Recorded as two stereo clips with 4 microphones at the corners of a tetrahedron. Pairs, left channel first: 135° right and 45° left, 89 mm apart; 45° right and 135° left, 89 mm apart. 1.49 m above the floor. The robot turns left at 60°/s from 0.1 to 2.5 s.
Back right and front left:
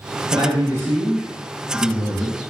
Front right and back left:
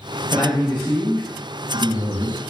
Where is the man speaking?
15° left, 0.9 m; by 2.4 s 110° right, 0.9 m.